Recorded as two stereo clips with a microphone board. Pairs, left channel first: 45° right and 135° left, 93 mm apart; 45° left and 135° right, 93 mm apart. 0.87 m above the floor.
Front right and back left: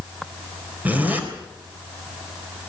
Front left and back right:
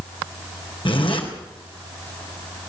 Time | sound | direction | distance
0.8 | a zipper | 65° left | 4 m